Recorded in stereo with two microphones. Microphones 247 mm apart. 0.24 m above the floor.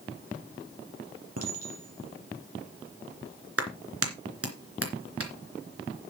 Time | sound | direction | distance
1.4 | a clink | 75° right (ahead or behind) | 3.5 m
3.6 | a clap | 65° right (ahead or behind) | 3 m